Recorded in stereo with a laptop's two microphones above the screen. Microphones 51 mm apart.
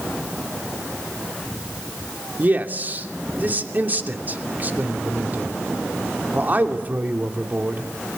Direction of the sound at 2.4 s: 35° right (ahead or behind).